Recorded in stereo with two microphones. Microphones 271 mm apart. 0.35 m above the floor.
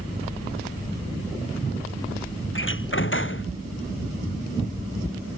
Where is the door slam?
45° left (ahead or behind).